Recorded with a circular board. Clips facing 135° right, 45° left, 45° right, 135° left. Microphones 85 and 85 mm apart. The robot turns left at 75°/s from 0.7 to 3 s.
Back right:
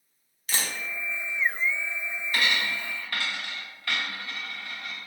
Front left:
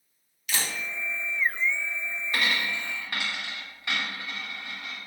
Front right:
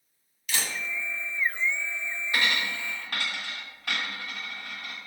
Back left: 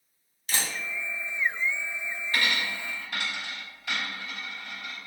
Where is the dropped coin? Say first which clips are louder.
Back right 1 dB, front right 1 dB; 25° left, 1.0 m; by 5.0 s 25° right, 1.0 m.